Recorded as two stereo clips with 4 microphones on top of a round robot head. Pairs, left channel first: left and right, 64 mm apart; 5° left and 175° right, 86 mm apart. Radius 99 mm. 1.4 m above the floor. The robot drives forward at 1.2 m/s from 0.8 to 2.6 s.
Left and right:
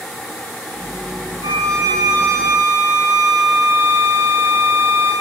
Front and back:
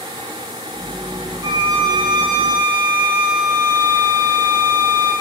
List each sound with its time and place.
1.4 s a violin: 120° right, 5.5 m; by 5.1 s 130° right, 6.5 m